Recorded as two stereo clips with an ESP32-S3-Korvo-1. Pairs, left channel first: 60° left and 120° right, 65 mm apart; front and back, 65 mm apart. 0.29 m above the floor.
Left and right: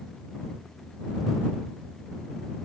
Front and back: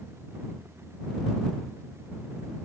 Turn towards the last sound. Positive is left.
No sound to turn to.